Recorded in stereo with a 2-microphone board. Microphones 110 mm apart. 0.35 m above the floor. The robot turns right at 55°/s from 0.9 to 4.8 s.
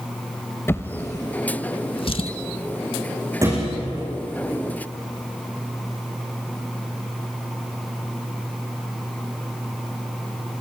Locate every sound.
0.7 s a drawer: 25° left (ahead or behind), 0.8 m; by 2.3 s 55° left (ahead or behind), 0.8 m
3.4 s a thud: 25° right (ahead or behind), 9.5 m; by 3.8 s 45° right (ahead or behind), 9.5 m